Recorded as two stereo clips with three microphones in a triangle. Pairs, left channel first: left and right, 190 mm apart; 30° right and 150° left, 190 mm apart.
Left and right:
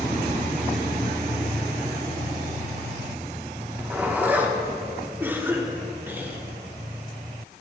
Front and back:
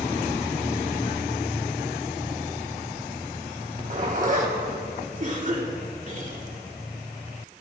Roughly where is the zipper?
Behind.